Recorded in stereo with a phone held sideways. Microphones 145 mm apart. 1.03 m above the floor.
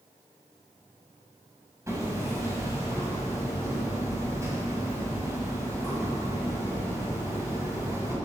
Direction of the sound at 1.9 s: 20° right (ahead or behind).